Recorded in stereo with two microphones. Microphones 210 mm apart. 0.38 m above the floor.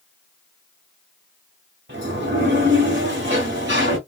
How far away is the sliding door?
About 1.9 m.